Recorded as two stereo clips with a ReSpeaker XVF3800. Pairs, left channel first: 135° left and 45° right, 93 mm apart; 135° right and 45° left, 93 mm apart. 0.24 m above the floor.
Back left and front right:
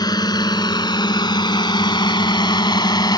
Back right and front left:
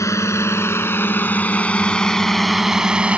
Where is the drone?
175° left; by 3.2 s 115° left.